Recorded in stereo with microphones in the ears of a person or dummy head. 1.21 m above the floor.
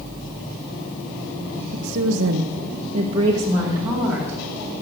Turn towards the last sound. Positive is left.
turn(degrees=-10)  # may be behind; listen again after turning